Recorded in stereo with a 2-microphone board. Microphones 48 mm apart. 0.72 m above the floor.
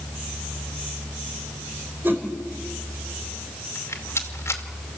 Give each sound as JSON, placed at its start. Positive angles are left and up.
{"t": 2.0, "sound": "a whoosh", "side_deg": -45, "distance_m": 4.0}
{"t": 3.8, "sound": "a rattle", "side_deg": 65, "distance_m": 2.5}